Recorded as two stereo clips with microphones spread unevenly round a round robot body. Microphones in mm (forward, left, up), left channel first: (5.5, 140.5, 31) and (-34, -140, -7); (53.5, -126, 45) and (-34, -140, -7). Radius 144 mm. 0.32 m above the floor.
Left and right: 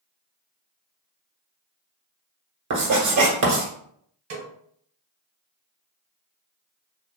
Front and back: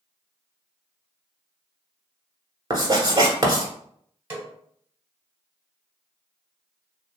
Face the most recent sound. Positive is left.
turn(degrees=-125)